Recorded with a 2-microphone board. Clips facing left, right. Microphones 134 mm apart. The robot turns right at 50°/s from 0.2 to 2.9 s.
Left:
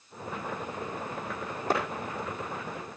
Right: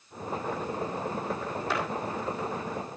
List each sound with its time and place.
1.7 s a clap: 45° left (ahead or behind), 5 m; by 1.8 s 40° left (ahead or behind), 5 m